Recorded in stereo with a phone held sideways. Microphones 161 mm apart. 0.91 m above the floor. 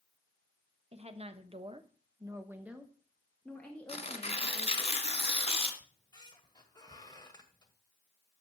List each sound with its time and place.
0.9 s a woman speaking: 40° right (ahead or behind), 1.2 m; by 4.9 s 15° left (ahead or behind), 2 m
3.9 s tearing paper: 40° left (ahead or behind), 1.9 m
5.8 s a squeak: 25° left (ahead or behind), 1.5 m